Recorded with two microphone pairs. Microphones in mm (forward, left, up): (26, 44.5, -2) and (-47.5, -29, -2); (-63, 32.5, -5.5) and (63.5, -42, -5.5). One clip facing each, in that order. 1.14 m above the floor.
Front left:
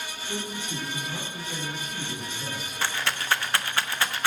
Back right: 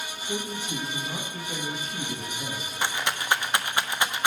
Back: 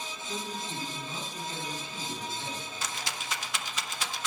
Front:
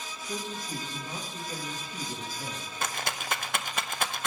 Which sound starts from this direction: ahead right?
A rattle, at 2.8 s.